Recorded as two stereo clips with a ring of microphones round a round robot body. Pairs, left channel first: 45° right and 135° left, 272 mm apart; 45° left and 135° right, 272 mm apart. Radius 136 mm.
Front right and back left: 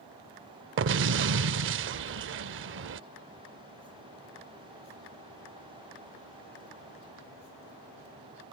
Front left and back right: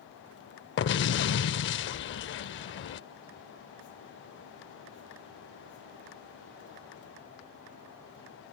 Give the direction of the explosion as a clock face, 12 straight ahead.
9 o'clock.